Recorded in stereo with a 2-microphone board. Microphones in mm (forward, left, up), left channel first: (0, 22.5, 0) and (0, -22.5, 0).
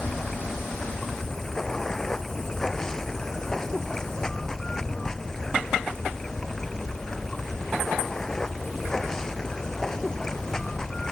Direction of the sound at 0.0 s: 15° left (ahead or behind).